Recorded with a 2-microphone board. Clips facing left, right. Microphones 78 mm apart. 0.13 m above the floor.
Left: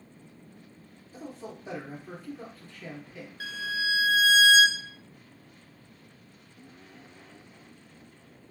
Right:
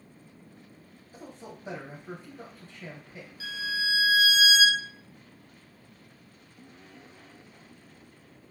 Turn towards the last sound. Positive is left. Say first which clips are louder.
# left 1 dB
turn(degrees=65)  # may be behind; listen again after turning